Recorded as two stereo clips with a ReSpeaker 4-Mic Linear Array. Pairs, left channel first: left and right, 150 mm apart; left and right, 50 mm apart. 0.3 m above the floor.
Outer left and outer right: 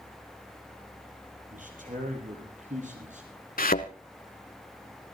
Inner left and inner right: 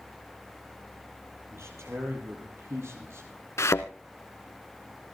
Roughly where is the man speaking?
Right.